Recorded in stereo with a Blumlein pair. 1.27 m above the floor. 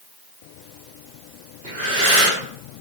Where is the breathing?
60° right, 2 m.